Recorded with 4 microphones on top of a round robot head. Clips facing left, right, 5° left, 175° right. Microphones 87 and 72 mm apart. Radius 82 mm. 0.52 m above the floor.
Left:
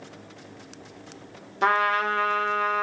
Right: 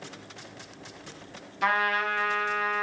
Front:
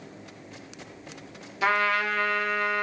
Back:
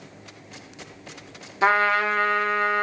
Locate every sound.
1.6 s a trumpet: 135° left, 1.9 m